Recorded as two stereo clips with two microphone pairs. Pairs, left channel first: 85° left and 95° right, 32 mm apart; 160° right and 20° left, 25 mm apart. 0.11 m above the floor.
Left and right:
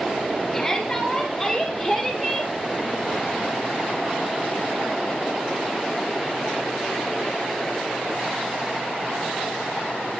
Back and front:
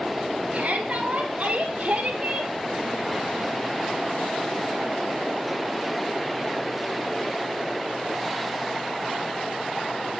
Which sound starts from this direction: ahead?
A shout, at 0.5 s.